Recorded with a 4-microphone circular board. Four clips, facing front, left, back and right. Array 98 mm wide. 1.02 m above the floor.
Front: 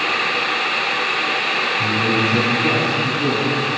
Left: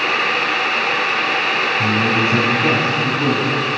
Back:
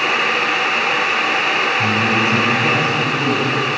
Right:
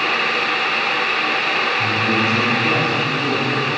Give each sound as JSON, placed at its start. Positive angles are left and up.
{"t": 1.8, "sound": "a man speaking", "azimuth_deg": 105, "distance_m": 8.5}